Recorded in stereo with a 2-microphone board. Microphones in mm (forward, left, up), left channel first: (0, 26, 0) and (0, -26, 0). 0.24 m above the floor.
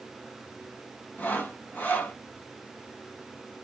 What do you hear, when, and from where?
1.2 s sawing: 30° left (ahead or behind), 1.4 m